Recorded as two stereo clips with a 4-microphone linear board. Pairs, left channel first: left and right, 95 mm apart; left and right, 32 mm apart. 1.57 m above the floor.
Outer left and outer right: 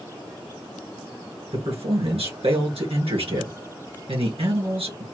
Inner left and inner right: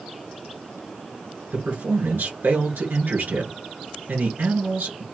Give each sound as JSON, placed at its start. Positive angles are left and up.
{"t": 1.5, "sound": "a man speaking", "side_deg": -80, "distance_m": 2.0}